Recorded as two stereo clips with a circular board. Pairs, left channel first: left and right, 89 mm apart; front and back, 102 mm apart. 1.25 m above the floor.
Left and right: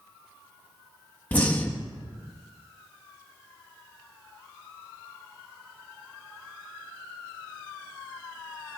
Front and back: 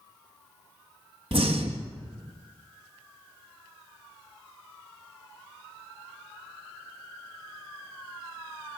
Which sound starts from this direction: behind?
Breathing, at 1.3 s.